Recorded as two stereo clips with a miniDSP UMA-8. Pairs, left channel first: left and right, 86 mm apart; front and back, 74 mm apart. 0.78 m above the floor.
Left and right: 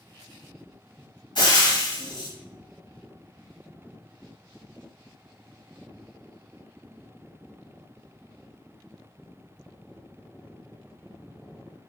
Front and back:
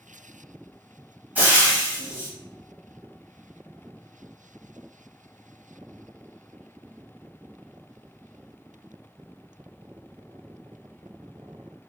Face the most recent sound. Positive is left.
turn(degrees=115)